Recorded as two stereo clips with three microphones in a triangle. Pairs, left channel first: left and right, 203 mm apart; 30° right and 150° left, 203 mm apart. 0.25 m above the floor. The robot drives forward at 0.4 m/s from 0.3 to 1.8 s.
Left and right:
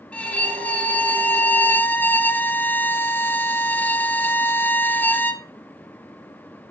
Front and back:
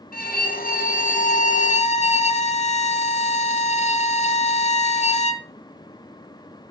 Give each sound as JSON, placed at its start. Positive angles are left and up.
{"t": 0.1, "sound": "a violin", "azimuth_deg": 5, "distance_m": 1.5}